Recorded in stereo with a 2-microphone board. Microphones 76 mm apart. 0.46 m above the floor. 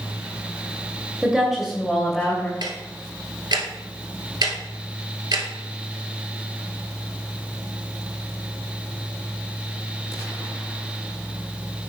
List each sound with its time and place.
1.2 s a woman speaking: 10° right (ahead or behind), 2 m; by 2.5 s 10° left (ahead or behind), 2.5 m
2.6 s ticking: 65° right (ahead or behind), 1.7 m